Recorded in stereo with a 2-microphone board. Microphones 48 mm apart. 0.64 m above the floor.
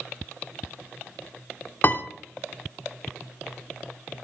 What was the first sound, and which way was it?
A piano, 45° left (ahead or behind).